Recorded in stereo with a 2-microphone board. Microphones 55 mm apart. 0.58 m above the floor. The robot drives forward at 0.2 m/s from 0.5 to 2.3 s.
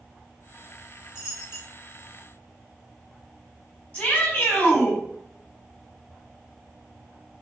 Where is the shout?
20° left (ahead or behind), 5 m.